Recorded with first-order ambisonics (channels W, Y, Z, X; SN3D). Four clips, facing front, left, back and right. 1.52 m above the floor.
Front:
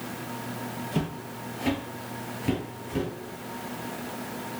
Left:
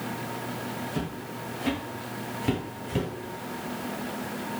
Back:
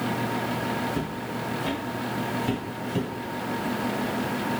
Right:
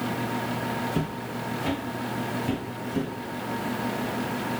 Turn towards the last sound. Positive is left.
turn(degrees=100)